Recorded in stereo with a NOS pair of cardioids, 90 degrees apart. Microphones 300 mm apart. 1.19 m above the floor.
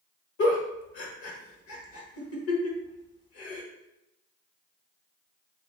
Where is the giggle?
50° left, 1.4 m.